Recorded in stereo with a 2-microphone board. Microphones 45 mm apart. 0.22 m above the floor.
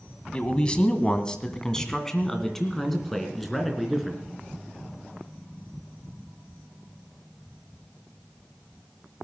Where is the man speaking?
25° left (ahead or behind), 1.6 m; by 4.2 s centre (ahead or behind), 3 m.